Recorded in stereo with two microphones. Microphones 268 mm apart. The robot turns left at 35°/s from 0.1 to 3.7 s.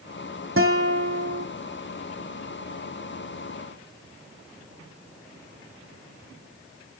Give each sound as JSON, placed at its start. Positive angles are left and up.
{"t": 0.6, "sound": "a guitar", "azimuth_deg": -50, "distance_m": 2.0}